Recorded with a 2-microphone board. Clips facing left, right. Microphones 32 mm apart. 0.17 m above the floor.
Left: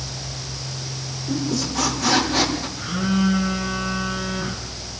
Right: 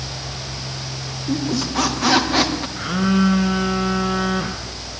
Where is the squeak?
30° right (ahead or behind), 5 m.